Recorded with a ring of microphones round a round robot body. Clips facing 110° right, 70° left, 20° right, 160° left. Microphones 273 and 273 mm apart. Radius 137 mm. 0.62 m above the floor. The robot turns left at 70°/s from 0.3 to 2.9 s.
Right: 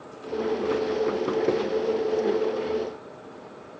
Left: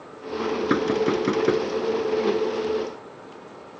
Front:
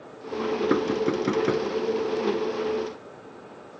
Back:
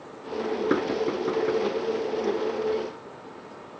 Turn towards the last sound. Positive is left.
turn(degrees=-95)